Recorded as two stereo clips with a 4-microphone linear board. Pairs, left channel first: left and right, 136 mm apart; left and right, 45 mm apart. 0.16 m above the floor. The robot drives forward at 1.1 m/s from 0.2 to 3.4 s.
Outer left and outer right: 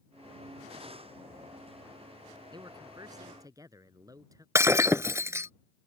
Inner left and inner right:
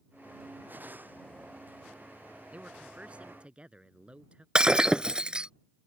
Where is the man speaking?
35° right (ahead or behind); by 4.5 s 25° right (ahead or behind).